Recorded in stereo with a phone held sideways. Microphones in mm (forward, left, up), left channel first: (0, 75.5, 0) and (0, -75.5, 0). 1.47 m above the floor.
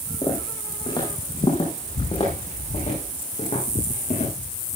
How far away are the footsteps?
About 5.5 m.